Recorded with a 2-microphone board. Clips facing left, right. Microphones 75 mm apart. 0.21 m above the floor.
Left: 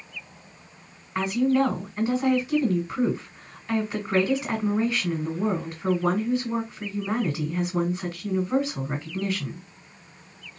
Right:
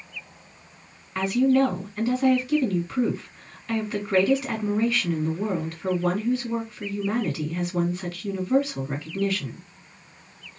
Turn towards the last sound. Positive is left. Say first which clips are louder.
# right 2 dB
turn(degrees=15)  # may be behind; listen again after turning